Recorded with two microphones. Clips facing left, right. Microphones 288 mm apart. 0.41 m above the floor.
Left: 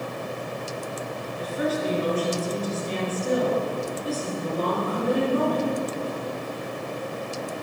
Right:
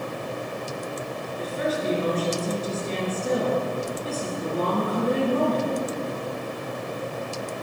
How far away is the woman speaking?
About 5.5 m.